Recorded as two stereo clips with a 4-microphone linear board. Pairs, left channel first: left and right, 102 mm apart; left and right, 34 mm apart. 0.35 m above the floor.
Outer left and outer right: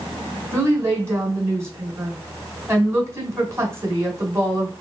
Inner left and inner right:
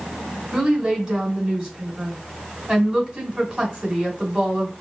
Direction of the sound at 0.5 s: 25° right (ahead or behind).